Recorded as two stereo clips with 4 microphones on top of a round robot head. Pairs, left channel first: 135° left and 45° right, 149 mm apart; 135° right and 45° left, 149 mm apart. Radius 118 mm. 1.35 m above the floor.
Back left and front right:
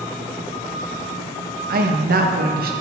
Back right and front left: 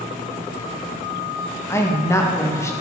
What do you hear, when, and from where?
1.7 s a woman speaking: 65° right, 1.7 m